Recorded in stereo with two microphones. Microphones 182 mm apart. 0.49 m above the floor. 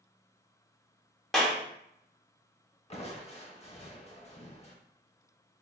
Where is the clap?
Centre (ahead or behind), 0.9 m.